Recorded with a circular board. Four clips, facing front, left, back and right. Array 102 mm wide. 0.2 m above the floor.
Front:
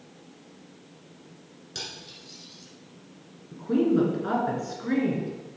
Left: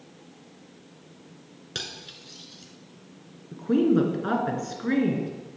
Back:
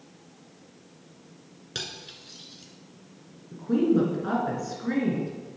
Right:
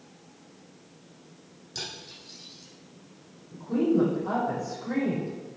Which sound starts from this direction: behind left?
Cutlery clinking, at 1.8 s.